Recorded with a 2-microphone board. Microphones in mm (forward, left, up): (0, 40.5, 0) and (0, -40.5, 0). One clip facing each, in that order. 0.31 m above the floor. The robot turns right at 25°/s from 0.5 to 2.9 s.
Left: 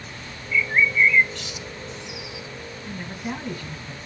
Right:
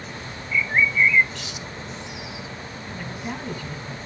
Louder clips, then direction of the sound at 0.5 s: Even; 15° right (ahead or behind).